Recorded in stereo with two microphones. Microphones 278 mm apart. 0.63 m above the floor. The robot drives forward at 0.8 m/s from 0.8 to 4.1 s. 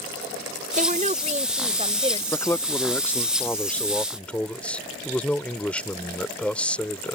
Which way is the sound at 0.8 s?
30° right (ahead or behind).